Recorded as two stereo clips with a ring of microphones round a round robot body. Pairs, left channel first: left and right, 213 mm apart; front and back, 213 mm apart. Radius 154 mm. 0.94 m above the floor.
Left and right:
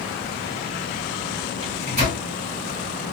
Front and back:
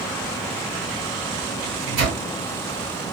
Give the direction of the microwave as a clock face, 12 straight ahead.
5 o'clock.